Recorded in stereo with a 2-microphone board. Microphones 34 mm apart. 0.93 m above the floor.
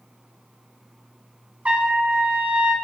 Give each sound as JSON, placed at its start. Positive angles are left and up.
{"t": 1.6, "sound": "a trumpet", "side_deg": -40, "distance_m": 1.0}